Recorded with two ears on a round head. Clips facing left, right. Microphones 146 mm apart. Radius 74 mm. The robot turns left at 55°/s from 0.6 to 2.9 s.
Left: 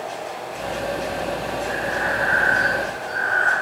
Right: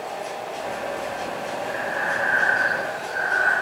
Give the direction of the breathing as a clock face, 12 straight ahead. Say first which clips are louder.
Left 2 dB; 9 o'clock.